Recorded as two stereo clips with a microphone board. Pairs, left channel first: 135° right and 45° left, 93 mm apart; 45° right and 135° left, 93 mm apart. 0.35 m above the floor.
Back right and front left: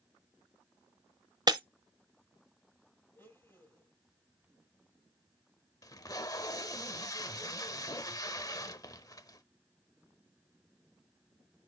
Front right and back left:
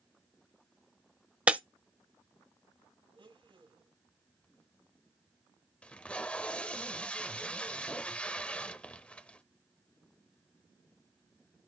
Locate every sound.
1.5 s breaking glass: 65° left, 0.7 m
3.1 s a blender: 160° left, 6.5 m
5.8 s tape being pulled: 115° right, 0.8 m